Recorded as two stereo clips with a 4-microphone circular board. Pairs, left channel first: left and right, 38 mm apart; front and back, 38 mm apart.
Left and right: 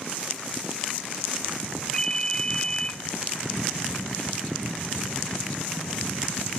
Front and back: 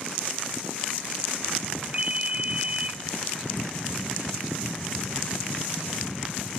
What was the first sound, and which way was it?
A ringtone, 150° left.